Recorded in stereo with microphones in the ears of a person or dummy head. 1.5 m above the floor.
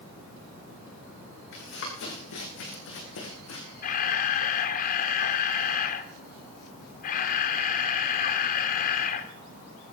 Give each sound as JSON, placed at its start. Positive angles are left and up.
{"t": 1.5, "sound": "running footsteps", "side_deg": 65, "distance_m": 7.0}
{"t": 3.8, "sound": "a camera shutter", "side_deg": 45, "distance_m": 1.8}